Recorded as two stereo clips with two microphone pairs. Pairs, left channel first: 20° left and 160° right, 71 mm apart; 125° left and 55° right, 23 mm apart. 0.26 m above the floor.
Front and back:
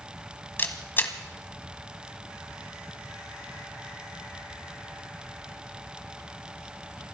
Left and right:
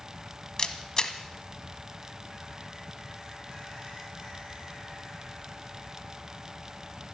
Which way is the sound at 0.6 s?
70° left.